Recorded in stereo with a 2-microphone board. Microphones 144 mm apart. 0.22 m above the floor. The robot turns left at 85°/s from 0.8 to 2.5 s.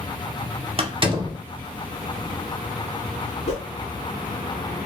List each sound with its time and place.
0.8 s a door slam: 45° right (ahead or behind), 1.0 m; by 1.4 s 20° right (ahead or behind), 1.0 m
3.5 s a whoosh: 50° left (ahead or behind), 1.1 m